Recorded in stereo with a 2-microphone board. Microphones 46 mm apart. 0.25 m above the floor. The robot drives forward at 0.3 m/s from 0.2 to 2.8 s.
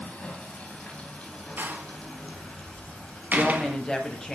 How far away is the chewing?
No chewing in this recording.